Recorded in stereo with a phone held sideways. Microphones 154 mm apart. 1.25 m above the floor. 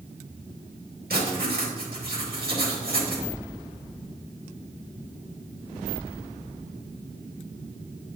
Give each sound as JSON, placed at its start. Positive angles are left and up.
{"t": 1.1, "sound": "writing", "side_deg": -85, "distance_m": 2.0}